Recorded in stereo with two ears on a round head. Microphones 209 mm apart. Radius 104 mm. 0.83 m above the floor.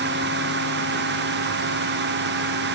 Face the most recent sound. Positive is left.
No sound to turn to.